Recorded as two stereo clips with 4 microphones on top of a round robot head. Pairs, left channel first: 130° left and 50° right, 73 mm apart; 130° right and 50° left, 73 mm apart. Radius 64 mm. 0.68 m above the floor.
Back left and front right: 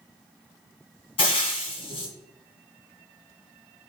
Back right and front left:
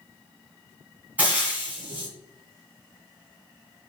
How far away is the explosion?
No explosion in this recording.